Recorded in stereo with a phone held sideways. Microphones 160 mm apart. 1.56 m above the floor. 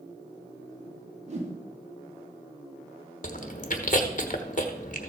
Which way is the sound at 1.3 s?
45° right (ahead or behind).